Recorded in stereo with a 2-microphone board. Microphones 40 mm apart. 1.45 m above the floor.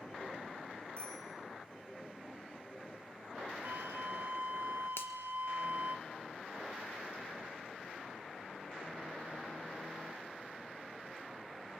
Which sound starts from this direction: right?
A flute, at 3.6 s.